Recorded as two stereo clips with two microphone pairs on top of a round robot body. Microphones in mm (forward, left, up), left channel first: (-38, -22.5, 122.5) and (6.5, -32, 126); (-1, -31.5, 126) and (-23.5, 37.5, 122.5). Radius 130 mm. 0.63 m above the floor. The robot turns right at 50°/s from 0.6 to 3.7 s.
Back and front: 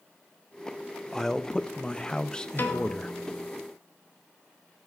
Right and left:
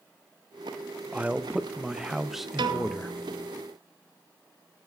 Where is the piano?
110° left, 0.7 m; by 3.5 s 160° left, 0.7 m.